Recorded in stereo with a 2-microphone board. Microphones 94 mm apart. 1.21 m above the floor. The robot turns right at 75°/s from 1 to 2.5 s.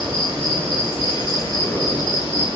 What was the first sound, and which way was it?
An insect, 25° right.